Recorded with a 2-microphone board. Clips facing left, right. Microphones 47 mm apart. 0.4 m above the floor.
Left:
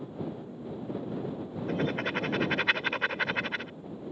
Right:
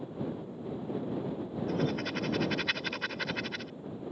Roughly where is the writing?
Left.